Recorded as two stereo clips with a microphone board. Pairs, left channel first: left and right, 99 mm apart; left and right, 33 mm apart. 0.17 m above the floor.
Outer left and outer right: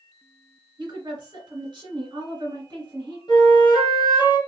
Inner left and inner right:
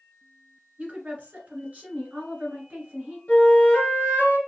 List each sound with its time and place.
0.8 s a woman speaking: 45° right (ahead or behind), 1.9 m
3.3 s a flute: 50° left (ahead or behind), 1.7 m